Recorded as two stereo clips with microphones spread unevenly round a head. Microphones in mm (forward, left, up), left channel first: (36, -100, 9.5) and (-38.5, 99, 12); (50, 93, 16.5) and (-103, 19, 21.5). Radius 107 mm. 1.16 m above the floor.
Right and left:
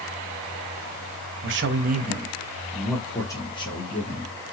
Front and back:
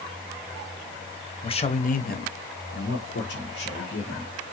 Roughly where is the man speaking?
Left.